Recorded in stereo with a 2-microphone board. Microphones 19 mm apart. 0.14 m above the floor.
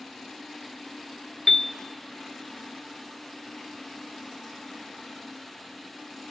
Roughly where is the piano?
Left.